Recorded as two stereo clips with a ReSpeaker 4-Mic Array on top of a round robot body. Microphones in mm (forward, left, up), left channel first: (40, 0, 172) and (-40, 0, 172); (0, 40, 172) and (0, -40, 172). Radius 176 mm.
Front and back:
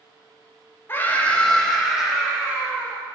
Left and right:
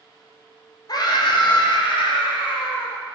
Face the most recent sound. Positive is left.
turn(degrees=105)